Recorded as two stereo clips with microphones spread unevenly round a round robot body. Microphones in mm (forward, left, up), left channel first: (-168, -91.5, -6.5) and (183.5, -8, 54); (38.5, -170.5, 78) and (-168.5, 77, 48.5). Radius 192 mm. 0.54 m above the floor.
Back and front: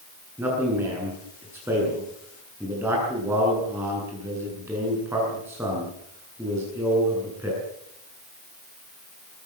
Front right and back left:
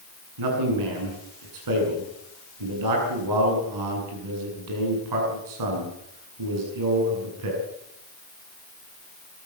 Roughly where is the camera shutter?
No camera shutter in this recording.